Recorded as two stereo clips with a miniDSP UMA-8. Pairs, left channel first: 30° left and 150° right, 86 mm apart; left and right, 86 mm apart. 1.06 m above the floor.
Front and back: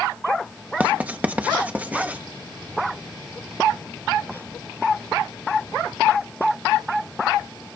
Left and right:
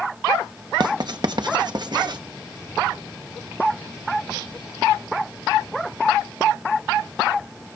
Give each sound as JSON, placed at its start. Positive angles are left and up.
{"t": 0.8, "sound": "writing", "azimuth_deg": -80, "distance_m": 0.9}